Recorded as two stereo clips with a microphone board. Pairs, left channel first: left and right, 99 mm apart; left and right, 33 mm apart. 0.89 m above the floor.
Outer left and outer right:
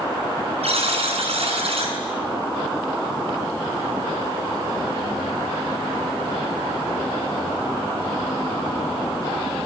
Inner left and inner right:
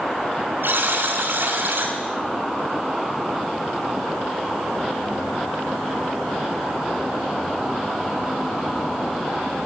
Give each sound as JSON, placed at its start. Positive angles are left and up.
{"t": 0.6, "sound": "a buzzer", "side_deg": -80, "distance_m": 5.5}